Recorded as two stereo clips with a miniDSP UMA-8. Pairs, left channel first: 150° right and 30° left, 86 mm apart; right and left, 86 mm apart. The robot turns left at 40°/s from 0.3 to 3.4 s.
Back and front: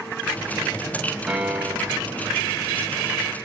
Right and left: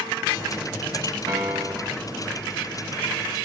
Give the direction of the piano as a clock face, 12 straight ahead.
8 o'clock.